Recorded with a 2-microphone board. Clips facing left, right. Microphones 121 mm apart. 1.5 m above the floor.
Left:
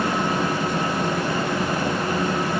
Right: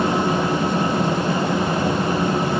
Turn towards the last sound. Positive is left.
No sound to turn to.